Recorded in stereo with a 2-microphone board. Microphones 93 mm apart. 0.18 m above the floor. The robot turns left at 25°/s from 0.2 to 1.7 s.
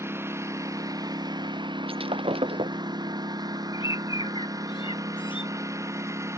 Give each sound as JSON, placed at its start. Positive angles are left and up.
{"t": 0.0, "sound": "a lawn mower", "side_deg": -25}
{"t": 1.9, "sound": "breaking glass", "side_deg": -80}
{"t": 3.7, "sound": "a bird", "side_deg": 60}